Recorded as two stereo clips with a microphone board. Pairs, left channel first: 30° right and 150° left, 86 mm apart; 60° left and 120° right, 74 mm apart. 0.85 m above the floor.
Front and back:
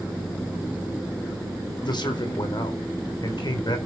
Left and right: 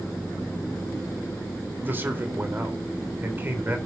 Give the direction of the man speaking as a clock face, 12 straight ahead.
2 o'clock.